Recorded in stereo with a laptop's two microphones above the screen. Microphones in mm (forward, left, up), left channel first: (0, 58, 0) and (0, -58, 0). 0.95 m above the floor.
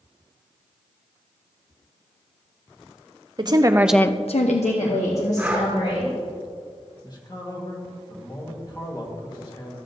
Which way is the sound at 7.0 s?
35° left (ahead or behind).